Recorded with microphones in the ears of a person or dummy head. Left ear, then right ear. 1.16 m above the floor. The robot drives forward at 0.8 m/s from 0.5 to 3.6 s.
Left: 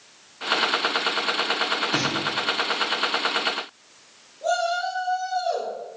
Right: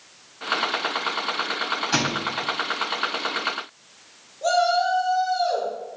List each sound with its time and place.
1.9 s a thud: 70° right (ahead or behind), 3.5 m; by 2.3 s 65° right (ahead or behind), 3.5 m
4.4 s a shout: 40° right (ahead or behind), 3.5 m